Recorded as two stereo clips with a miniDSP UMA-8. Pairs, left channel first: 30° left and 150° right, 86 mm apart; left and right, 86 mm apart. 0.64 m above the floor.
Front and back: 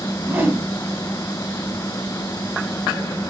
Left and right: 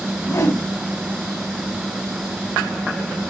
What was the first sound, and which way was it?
A whoosh, 140° left.